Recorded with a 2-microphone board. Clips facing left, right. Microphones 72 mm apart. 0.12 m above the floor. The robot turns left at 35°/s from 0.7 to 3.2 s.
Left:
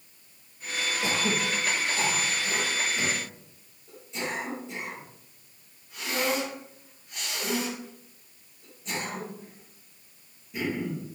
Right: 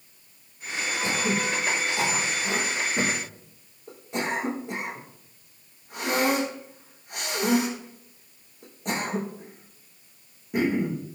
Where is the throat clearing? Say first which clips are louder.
Right 2 dB; 15° left (ahead or behind), 4.5 m; by 11.0 s 60° right (ahead or behind), 4.5 m.